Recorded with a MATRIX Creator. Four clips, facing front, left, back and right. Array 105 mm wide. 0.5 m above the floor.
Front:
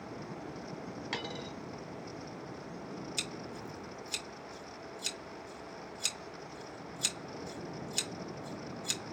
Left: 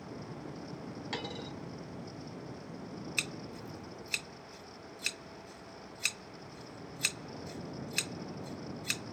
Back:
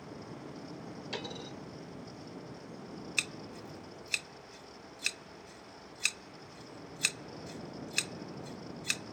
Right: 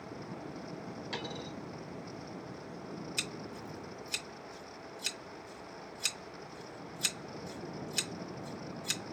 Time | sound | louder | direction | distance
1.1 | a dropped coin | left 1 dB, front 1 dB | 20° left | 4 m
3.2 | scissors | even, front 1 dB | 145° left | 1.8 m